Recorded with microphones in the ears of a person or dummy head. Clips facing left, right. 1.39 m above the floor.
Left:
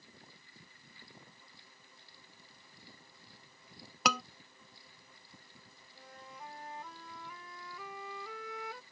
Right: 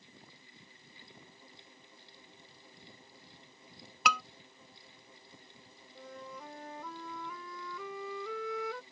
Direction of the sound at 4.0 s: 40° left (ahead or behind).